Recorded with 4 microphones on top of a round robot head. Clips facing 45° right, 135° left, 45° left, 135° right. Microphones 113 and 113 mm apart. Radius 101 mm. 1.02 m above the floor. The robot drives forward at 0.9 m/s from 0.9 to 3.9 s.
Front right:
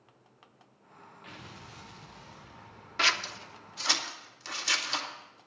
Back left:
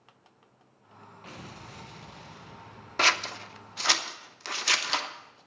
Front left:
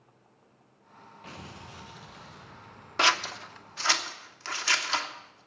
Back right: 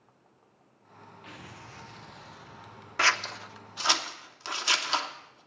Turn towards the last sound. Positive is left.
turn(degrees=150)